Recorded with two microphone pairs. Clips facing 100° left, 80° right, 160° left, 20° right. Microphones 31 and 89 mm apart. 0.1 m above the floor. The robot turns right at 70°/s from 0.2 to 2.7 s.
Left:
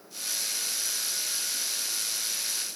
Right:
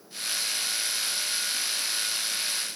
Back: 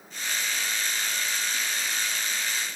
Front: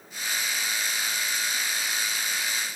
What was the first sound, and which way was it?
Only background noise.